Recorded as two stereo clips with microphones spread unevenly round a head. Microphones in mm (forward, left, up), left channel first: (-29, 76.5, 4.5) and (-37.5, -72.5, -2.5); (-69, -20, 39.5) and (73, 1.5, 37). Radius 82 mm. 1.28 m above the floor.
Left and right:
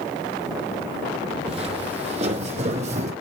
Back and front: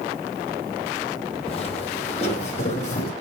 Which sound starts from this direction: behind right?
Footsteps, at 1.5 s.